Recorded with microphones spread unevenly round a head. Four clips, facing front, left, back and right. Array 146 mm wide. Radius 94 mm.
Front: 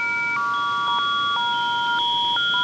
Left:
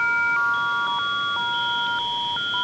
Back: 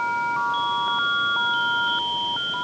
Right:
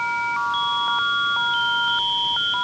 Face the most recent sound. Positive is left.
No sound to turn to.